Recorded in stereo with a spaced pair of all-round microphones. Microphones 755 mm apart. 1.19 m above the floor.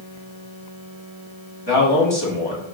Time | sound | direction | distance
1.7 | a man speaking | 30° left (ahead or behind) | 1.9 m